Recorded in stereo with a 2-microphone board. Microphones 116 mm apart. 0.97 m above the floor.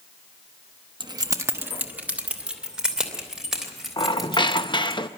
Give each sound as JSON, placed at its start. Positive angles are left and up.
{"t": 1.0, "sound": "keys jangling", "side_deg": -40, "distance_m": 0.8}
{"t": 4.0, "sound": "a squeak", "side_deg": 40, "distance_m": 0.6}